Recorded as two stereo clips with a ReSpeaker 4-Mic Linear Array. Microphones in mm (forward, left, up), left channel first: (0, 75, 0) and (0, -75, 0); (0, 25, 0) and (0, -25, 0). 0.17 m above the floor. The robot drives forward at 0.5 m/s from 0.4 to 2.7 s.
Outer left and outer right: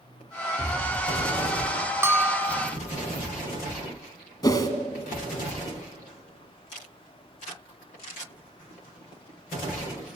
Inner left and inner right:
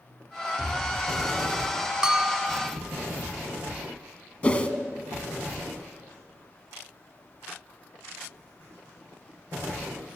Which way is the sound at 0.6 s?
5° left (ahead or behind).